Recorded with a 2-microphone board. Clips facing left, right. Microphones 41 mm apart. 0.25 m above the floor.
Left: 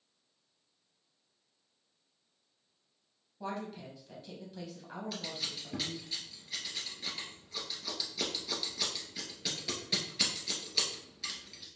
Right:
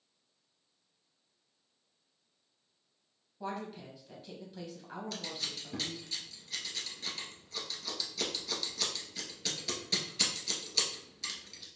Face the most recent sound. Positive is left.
turn(degrees=10)  # may be behind; listen again after turning